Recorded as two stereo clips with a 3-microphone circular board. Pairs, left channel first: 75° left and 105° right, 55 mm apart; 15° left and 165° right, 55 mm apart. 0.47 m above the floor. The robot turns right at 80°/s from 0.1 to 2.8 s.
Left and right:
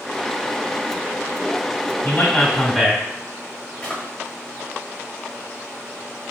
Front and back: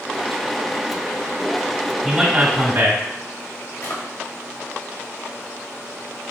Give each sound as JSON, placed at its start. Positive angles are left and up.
{"t": 2.0, "sound": "a man speaking", "azimuth_deg": 100, "distance_m": 1.1}
{"t": 3.8, "sound": "a drawer", "azimuth_deg": 5, "distance_m": 1.3}